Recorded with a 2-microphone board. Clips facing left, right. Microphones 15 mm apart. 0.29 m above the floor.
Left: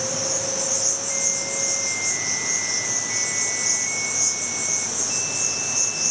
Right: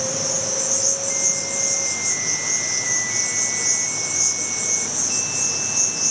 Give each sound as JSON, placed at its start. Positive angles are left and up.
{"t": 0.0, "sound": "an insect", "side_deg": -30, "distance_m": 5.0}